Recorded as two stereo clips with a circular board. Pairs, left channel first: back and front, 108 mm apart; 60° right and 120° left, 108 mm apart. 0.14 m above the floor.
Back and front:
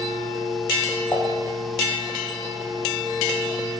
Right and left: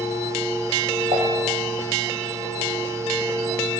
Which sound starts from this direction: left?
Dishes clattering, at 1.1 s.